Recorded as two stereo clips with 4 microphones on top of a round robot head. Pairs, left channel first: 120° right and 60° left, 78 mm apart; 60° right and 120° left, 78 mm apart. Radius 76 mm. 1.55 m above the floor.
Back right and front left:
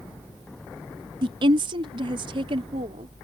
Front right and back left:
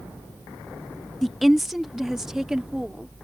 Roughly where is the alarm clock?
I don't hear an alarm clock.